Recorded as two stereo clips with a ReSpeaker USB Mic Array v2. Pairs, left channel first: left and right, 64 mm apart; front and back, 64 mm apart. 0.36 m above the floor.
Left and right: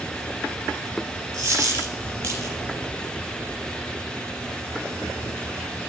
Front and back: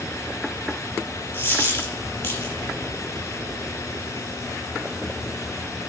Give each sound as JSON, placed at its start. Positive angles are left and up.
{"t": 1.3, "sound": "a dropped coin", "azimuth_deg": -60, "distance_m": 4.5}